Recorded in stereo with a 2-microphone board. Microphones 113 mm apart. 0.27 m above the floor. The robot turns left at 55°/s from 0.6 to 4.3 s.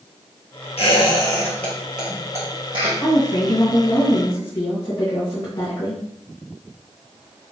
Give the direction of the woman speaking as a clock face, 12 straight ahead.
8 o'clock.